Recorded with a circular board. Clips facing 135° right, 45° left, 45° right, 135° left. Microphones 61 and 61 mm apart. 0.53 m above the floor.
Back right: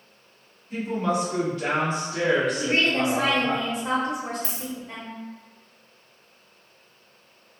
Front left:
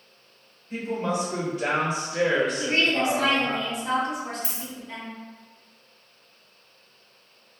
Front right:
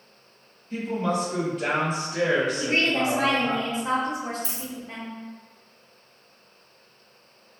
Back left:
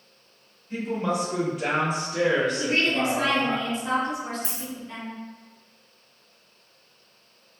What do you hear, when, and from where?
0.7 s a woman speaking: 85° left, 1.5 m; by 3.6 s 75° right, 1.5 m
2.6 s a woman speaking: 90° right, 0.9 m
4.4 s a dropped coin: 120° left, 0.8 m